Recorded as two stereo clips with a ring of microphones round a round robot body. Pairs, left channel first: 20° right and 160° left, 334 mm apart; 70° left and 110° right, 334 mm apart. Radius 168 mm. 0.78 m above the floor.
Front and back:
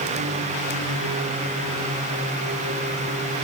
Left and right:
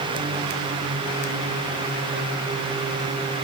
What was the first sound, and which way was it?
Only background noise.